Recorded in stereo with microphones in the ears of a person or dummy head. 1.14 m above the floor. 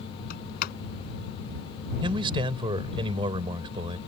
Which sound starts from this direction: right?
A man speaking, at 2.0 s.